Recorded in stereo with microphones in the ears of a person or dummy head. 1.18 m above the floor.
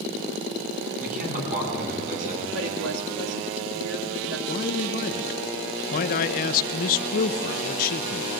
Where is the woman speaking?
85° right, 3 m.